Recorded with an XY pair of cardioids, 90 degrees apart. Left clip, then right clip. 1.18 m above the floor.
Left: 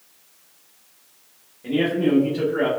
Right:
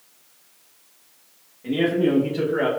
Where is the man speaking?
15° left, 1.0 m; by 2.7 s 45° right, 1.0 m.